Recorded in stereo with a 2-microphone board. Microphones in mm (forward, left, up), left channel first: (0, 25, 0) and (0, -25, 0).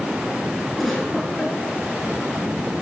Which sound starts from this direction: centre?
A giggle, at 0.8 s.